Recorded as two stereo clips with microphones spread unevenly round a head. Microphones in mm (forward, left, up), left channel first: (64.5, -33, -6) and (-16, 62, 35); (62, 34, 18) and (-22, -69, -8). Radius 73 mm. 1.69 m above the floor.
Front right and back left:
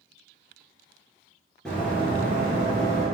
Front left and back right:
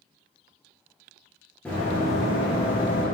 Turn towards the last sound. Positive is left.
turn(degrees=-85)